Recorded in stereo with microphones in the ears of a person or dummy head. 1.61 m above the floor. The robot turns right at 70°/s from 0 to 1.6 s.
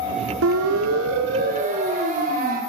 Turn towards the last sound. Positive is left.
turn(degrees=-45)  # may be behind; listen again after turning